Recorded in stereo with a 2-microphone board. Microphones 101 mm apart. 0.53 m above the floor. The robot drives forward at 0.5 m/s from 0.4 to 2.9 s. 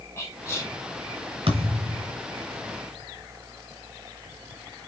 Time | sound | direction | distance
0.2 | whispering | 30° left (ahead or behind) | 4.5 m
1.5 | a thud | 70° right (ahead or behind) | 2.5 m